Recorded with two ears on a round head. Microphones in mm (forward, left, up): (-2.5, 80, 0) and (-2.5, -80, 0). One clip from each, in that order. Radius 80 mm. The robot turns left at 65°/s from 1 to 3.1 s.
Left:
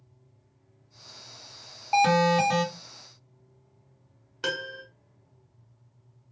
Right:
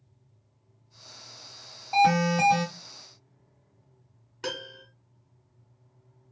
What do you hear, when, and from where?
1.9 s an alarm: 65° left, 1.5 m; by 2.6 s 15° left, 1.5 m
4.4 s a piano: 20° left (ahead or behind), 1.2 m